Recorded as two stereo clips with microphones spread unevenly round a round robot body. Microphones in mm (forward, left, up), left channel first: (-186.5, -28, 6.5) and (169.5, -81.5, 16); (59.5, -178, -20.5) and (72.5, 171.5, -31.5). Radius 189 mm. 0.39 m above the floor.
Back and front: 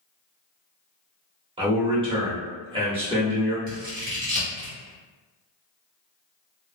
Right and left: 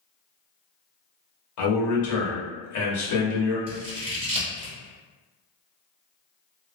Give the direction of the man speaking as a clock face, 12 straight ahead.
3 o'clock.